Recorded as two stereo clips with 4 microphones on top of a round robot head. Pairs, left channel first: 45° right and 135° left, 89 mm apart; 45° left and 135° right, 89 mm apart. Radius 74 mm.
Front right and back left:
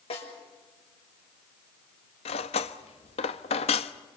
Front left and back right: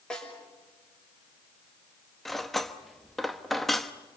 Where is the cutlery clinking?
45° right, 1.0 m.